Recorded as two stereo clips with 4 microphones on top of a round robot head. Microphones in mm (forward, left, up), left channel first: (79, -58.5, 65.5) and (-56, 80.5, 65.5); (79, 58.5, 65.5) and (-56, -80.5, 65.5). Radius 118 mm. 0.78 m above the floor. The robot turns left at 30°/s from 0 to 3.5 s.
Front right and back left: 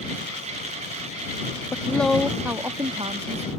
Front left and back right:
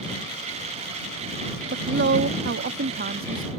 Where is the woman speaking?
125° right; by 3.5 s 175° right.